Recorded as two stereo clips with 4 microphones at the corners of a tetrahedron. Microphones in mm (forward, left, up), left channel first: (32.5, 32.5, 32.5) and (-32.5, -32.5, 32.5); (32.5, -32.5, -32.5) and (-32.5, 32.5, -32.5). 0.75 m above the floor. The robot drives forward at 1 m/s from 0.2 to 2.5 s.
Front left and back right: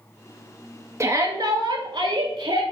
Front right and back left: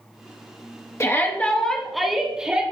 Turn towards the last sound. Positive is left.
turn(degrees=-150)